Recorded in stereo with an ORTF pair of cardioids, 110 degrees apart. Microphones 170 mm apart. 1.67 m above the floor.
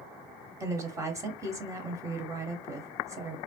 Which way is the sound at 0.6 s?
15° right.